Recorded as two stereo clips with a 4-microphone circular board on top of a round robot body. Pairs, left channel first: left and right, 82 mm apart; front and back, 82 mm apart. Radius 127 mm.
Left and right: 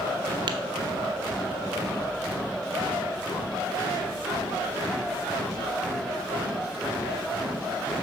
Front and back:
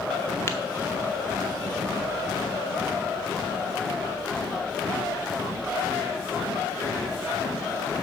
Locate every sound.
0.5 s tapping: 65° right, 0.8 m